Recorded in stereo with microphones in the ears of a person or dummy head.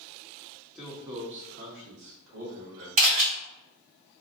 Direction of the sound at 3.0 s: 40° right (ahead or behind).